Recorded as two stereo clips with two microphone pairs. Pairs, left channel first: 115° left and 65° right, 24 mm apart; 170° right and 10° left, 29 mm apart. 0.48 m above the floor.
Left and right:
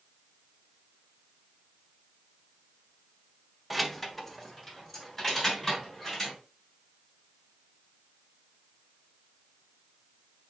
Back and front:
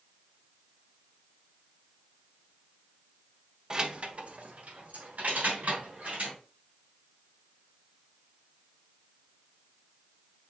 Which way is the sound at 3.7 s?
15° left.